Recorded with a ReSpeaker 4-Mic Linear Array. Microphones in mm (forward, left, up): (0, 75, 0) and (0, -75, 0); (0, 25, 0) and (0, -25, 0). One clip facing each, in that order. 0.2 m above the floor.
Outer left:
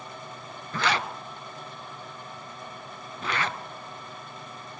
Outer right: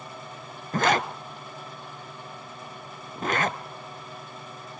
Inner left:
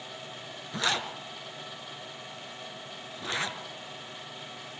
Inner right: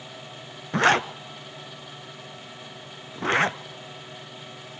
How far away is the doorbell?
I don't hear a doorbell.